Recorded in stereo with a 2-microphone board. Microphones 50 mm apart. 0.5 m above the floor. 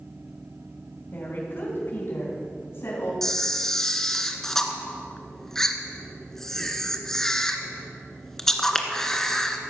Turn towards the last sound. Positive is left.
turn(degrees=10)  # may be behind; listen again after turning